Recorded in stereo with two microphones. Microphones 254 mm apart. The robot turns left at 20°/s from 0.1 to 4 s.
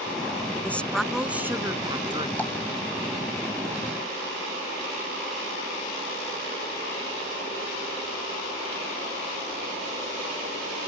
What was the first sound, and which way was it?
A woman speaking, 10° left.